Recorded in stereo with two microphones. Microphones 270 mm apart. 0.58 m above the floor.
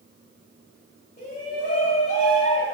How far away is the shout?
About 3.5 m.